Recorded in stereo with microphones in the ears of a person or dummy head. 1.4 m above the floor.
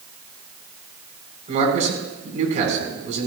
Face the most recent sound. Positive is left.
turn(degrees=-35)  # may be behind; listen again after turning